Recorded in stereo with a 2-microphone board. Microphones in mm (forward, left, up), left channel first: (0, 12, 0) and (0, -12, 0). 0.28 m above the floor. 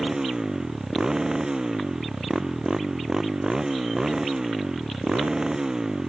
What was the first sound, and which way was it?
A motorcycle, 30° right (ahead or behind).